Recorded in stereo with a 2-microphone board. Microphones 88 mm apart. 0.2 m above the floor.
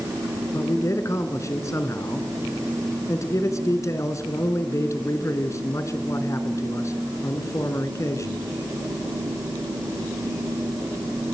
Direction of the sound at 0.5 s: 35° left (ahead or behind).